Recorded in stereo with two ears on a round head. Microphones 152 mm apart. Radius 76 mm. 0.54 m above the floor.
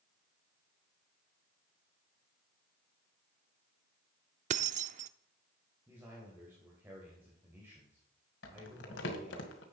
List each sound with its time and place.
4.5 s keys jangling: 45° right (ahead or behind), 0.5 m
5.9 s a man speaking: 15° right (ahead or behind), 2.5 m
8.4 s crumpling: 80° left, 1.9 m